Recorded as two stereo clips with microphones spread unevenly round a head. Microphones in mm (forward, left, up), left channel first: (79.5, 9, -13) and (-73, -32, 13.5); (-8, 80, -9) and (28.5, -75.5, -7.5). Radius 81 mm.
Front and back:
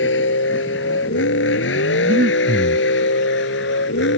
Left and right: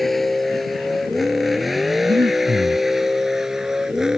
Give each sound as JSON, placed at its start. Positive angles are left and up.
{"t": 0.0, "sound": "a vehicle", "azimuth_deg": 15}
{"t": 2.0, "sound": "breathing", "azimuth_deg": -140}